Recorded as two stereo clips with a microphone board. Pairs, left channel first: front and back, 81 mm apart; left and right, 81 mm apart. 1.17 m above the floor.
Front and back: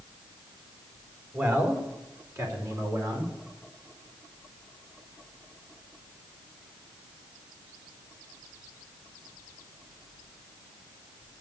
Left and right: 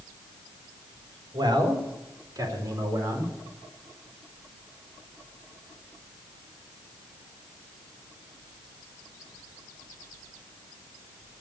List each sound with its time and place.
1.3 s a man speaking: 120° right, 3.5 m; by 3.3 s 145° right, 4.5 m